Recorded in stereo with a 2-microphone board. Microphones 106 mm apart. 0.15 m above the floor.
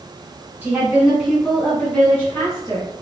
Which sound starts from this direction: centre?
A woman speaking, at 0.6 s.